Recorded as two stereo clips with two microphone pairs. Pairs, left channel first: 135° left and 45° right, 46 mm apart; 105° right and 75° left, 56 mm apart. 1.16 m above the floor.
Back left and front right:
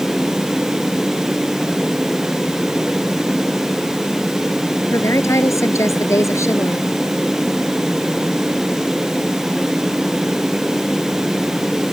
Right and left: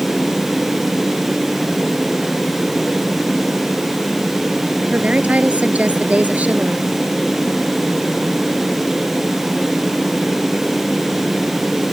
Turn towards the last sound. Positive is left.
turn(degrees=135)